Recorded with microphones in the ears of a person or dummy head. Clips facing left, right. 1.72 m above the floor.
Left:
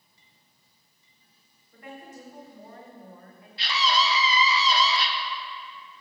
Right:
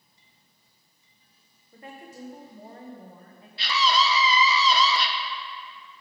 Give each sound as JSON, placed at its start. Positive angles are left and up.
{"t": 1.7, "sound": "a woman speaking", "side_deg": -25, "distance_m": 1.4}
{"t": 3.6, "sound": "a scream", "side_deg": -85, "distance_m": 1.1}